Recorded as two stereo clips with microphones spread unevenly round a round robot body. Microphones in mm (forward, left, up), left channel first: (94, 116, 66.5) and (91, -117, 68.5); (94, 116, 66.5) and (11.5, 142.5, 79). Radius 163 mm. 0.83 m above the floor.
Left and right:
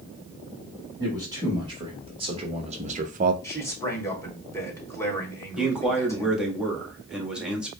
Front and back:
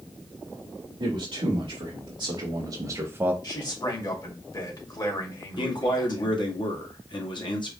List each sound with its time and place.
1.0 s a man speaking: 165° right, 1.6 m; by 3.3 s 120° right, 0.5 m
3.4 s a man speaking: 10° left, 2 m
5.6 s a man speaking: 5° right, 1.6 m